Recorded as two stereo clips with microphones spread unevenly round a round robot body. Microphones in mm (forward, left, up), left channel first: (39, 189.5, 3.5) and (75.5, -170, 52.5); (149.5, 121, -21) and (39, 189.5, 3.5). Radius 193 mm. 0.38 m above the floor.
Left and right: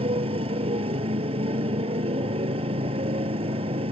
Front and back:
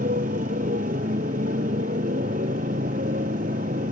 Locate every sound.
0.0 s a motorcycle: 160° right